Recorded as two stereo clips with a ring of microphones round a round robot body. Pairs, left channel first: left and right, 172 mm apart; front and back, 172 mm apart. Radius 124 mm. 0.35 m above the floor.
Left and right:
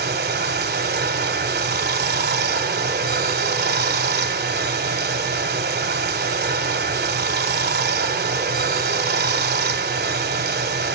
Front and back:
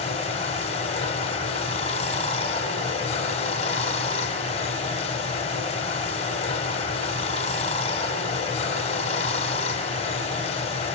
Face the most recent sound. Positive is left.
turn(degrees=-65)